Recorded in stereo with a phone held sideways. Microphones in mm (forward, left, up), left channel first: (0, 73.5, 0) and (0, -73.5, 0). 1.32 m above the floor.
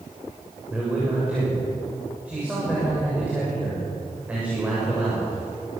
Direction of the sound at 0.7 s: 10° right (ahead or behind).